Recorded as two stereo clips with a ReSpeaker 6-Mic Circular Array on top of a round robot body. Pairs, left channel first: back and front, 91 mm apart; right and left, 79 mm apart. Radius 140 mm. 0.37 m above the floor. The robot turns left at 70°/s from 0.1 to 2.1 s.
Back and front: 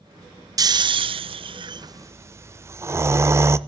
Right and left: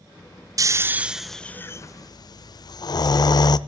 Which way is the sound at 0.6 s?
45° left.